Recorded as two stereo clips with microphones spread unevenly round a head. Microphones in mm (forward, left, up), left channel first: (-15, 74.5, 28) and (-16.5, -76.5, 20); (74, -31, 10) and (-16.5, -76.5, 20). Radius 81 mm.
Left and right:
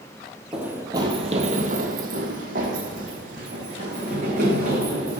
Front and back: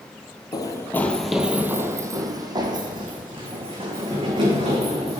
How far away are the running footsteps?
About 1.1 m.